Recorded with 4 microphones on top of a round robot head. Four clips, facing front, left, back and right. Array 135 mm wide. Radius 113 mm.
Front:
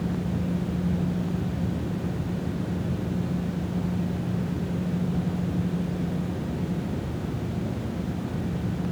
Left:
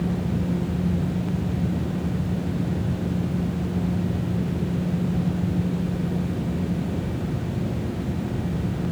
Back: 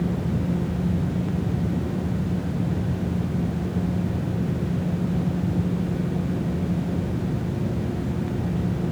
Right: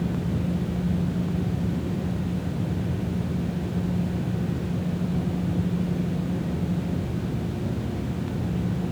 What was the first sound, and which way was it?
Only background noise.